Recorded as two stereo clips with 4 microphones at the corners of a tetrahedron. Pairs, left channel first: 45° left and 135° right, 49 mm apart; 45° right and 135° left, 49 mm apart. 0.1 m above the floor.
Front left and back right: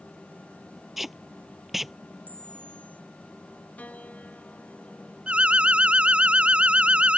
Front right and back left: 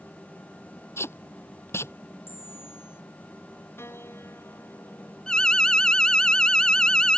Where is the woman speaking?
I don't hear a woman speaking.